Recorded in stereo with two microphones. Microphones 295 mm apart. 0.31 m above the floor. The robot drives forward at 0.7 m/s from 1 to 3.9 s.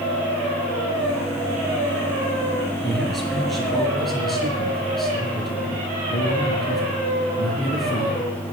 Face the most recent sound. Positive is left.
turn(degrees=0)  # may be behind; listen again after turning